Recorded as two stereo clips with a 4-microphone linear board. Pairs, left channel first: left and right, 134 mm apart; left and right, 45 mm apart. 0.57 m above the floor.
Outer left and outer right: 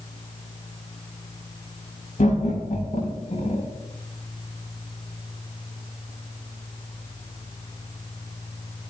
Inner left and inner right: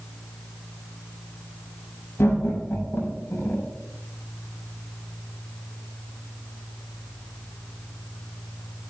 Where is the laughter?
70° left (ahead or behind), 7 m; by 3.7 s 60° left (ahead or behind), 7.5 m.